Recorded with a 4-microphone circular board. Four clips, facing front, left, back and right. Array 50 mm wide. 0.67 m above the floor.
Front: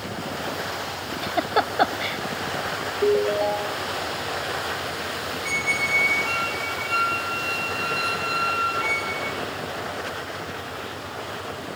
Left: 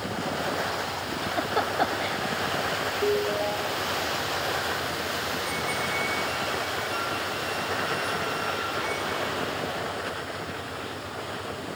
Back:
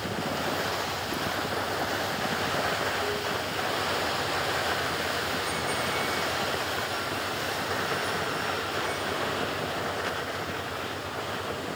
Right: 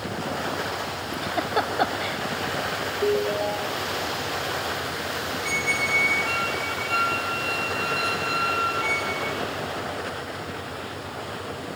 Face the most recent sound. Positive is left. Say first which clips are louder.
# right 4 dB, front 5 dB
turn(degrees=-35)